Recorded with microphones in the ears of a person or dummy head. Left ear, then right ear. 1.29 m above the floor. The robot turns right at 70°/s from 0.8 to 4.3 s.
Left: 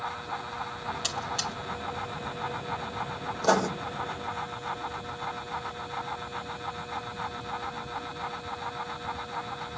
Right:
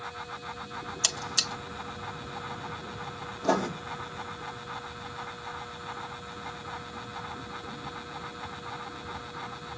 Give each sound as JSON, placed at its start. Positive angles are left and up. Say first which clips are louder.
{"t": 1.0, "sound": "a buzzer", "louder": "right 5 dB", "side_deg": -80, "distance_m": 1.8}
{"t": 3.4, "sound": "writing", "louder": "left 3 dB", "side_deg": 75, "distance_m": 2.0}